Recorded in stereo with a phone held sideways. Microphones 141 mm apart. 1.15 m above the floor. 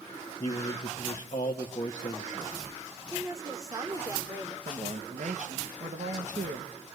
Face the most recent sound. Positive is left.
turn(degrees=-70)  # may be behind; listen again after turning